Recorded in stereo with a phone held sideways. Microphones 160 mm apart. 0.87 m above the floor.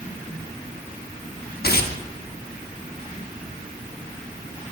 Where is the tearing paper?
75° left (ahead or behind), 0.9 m.